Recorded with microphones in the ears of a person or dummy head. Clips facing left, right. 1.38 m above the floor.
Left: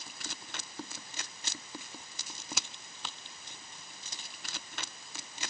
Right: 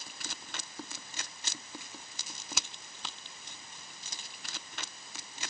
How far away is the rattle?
I don't hear a rattle.